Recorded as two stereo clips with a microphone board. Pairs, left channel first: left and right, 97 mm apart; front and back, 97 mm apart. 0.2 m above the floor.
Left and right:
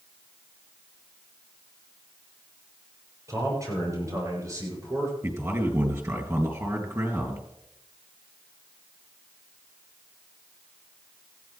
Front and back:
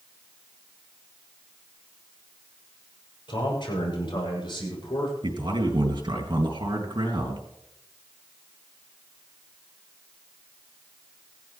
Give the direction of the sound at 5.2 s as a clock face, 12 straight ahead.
5 o'clock.